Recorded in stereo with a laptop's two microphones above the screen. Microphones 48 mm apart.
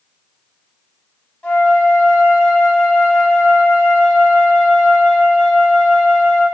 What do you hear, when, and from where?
1.4 s a flute: 25° left (ahead or behind), 1.1 m